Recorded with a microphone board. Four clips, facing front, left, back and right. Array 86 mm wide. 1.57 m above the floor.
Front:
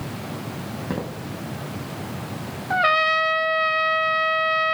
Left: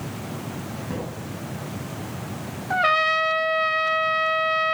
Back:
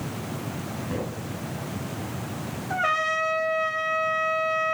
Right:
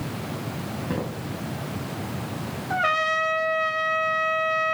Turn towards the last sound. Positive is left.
turn(degrees=30)